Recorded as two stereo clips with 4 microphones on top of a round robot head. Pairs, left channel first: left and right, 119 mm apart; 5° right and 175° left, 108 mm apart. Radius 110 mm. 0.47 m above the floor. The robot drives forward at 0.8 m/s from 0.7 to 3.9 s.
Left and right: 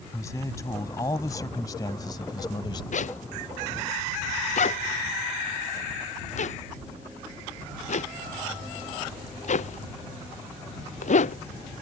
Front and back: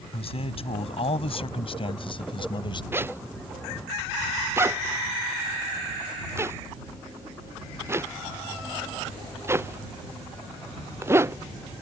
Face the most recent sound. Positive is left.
turn(degrees=110)